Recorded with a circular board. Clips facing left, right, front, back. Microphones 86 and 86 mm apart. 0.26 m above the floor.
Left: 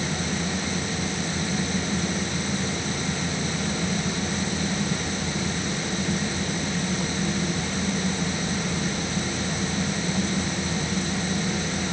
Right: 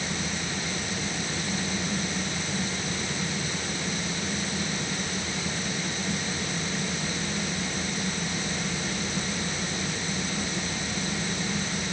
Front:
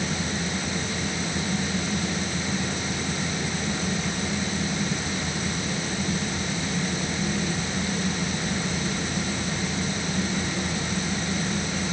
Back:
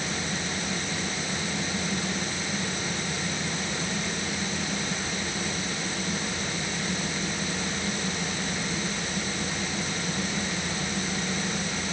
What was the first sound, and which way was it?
Only background noise.